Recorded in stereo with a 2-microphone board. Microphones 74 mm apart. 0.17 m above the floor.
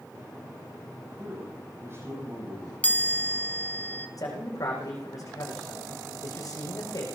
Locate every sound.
1.1 s a man speaking: 35° right (ahead or behind), 9 m
2.8 s a chime: 20° left (ahead or behind), 1.4 m
4.2 s a man speaking: 50° left (ahead or behind), 8.5 m